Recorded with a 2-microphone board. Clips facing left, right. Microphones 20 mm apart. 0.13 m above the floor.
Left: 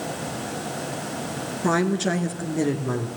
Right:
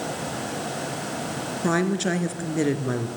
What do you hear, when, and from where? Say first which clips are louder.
1.6 s a woman speaking: left 1 dB; centre (ahead or behind), 2.0 m; by 3.1 s 20° right (ahead or behind), 2 m